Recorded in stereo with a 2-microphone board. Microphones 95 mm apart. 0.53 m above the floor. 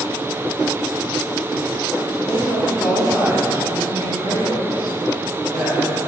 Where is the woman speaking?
25° left (ahead or behind), 1.9 m; by 6.0 s 60° right (ahead or behind), 3.5 m.